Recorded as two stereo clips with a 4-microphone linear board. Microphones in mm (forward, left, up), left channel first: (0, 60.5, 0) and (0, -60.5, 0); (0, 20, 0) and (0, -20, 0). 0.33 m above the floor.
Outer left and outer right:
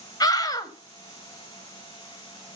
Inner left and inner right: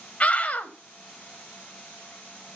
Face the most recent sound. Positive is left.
turn(degrees=30)  # may be behind; listen again after turning